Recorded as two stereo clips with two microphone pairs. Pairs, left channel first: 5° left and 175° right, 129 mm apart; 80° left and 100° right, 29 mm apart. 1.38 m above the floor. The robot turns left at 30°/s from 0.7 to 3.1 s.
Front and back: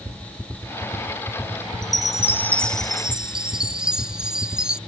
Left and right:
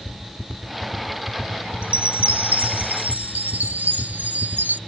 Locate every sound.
1.8 s a chime: 55° right; by 4.8 s 90° right